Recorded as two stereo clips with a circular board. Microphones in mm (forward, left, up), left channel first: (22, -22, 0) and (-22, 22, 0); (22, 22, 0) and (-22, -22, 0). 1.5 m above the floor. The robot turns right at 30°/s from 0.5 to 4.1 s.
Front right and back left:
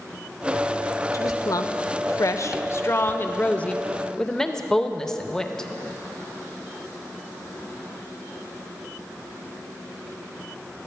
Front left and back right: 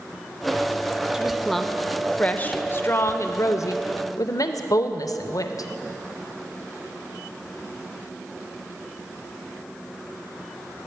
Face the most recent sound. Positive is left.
turn(degrees=35)